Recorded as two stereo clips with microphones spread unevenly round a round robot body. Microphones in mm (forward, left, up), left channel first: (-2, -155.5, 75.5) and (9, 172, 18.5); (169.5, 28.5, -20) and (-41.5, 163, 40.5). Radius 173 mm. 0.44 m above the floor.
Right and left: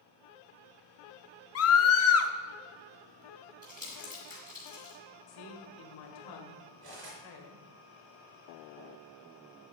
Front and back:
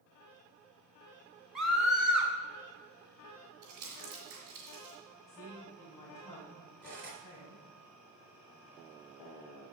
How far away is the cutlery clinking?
About 4 m.